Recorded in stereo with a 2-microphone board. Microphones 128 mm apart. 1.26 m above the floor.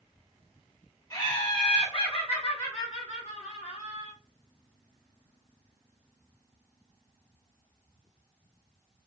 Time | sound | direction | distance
1.1 | laughter | 30° left (ahead or behind) | 1.6 m